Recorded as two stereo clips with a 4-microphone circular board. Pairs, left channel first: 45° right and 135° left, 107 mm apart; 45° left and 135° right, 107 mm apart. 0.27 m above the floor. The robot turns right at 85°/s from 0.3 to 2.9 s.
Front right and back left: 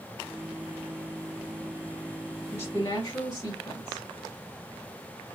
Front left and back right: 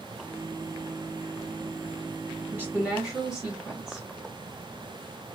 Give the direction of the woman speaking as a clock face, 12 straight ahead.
3 o'clock.